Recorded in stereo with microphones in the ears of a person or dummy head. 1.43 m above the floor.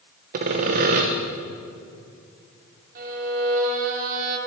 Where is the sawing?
40° right (ahead or behind), 0.5 m.